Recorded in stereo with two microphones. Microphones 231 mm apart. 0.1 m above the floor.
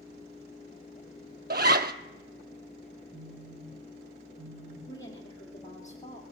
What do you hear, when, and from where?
1.5 s a zipper: 45° right (ahead or behind), 0.7 m
3.1 s a phone buzzing: 15° right (ahead or behind), 4.5 m
4.9 s a woman speaking: 15° left (ahead or behind), 2.5 m